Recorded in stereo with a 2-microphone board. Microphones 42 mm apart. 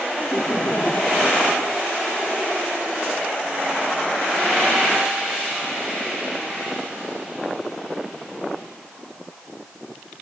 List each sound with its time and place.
0.2 s laughter: 40° left (ahead or behind); by 1.9 s 50° left (ahead or behind)